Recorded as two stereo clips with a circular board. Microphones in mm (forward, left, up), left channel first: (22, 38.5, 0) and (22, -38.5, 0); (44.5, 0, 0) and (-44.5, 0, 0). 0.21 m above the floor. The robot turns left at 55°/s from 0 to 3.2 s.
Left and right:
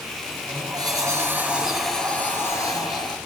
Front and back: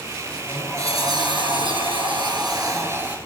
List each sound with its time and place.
0.3 s a sliding door: 95° right, 3 m; by 3.2 s 105° left, 3 m